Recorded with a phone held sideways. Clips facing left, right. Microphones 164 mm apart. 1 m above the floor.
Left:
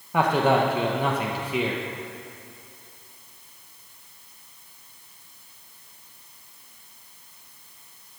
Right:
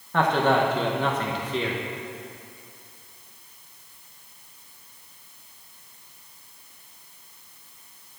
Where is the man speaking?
10° left (ahead or behind), 0.9 m.